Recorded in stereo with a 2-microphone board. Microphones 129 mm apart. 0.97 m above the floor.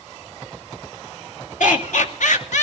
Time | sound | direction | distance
1.6 | laughter | 75° left (ahead or behind) | 2.5 m